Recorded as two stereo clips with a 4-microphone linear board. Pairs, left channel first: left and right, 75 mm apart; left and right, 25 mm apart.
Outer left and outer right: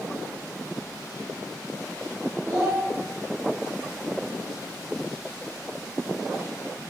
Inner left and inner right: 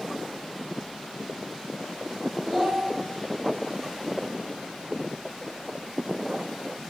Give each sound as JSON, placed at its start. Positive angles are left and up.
{"t": 2.5, "sound": "a child speaking", "side_deg": -75, "distance_m": 1.6}